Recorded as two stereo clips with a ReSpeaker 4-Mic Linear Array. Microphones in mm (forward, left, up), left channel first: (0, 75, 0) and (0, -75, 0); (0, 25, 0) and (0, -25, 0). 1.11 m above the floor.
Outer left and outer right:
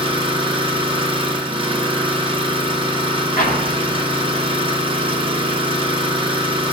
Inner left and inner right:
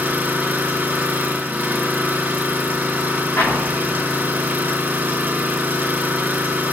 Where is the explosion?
80° left, 1.4 m.